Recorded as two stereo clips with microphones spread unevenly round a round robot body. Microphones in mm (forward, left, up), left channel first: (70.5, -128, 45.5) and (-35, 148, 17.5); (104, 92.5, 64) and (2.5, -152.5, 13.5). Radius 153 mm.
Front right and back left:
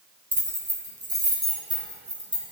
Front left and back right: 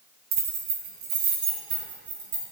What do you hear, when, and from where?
0.3 s keys jangling: 165° right, 1.8 m; by 2.4 s 175° right, 4 m